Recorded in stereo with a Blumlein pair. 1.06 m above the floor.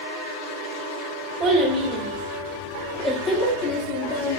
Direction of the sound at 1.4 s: 30° right.